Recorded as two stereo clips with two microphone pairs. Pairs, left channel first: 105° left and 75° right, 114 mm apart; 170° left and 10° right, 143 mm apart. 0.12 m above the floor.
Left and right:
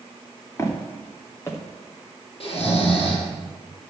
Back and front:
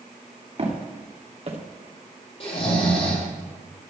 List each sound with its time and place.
0.6 s footsteps: 35° left, 3.5 m
2.4 s snoring: 130° left, 4 m